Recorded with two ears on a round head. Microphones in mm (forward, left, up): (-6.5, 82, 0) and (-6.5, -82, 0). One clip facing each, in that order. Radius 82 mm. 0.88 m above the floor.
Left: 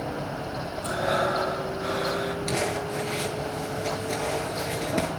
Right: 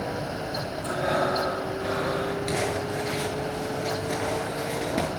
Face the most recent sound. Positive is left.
turn(degrees=-5)  # may be behind; listen again after turning